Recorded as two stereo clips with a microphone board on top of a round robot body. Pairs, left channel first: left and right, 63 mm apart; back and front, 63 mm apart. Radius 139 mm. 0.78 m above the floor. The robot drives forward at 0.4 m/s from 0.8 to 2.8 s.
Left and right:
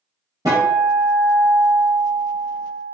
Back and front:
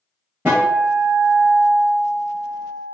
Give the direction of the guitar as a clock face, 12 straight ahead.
2 o'clock.